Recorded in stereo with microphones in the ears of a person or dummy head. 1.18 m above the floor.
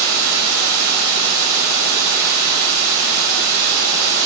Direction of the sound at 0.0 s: 85° right.